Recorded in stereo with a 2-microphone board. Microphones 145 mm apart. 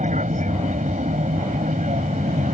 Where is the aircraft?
60° right (ahead or behind).